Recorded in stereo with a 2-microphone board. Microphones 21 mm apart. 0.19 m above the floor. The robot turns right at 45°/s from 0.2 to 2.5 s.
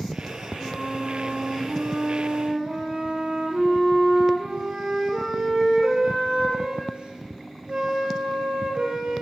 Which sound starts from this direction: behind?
A flute, at 0.6 s.